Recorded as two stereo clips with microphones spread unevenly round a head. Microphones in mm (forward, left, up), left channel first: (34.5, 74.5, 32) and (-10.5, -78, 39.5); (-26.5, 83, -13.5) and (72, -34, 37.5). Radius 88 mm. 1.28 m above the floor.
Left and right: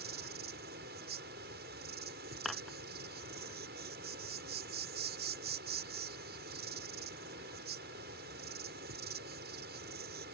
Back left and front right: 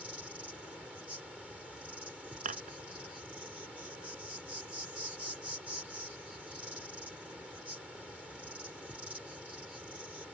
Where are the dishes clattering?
15° right.